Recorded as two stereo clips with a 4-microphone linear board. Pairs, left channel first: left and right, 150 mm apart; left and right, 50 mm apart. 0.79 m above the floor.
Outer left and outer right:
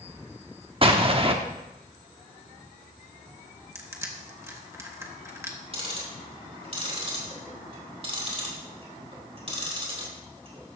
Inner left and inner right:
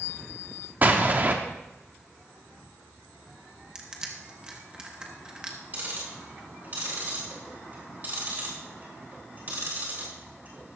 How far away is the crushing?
About 1.4 m.